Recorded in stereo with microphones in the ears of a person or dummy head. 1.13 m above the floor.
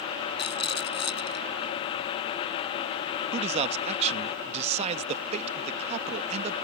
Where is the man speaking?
35° right (ahead or behind).